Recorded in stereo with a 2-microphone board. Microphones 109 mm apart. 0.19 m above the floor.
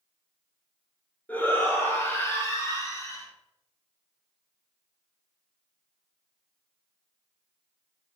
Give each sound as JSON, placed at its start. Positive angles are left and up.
{"t": 1.3, "sound": "a shout", "side_deg": 15, "distance_m": 3.0}